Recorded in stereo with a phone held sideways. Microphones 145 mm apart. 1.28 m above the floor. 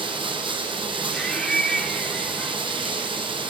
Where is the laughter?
5° left (ahead or behind), 3.5 m.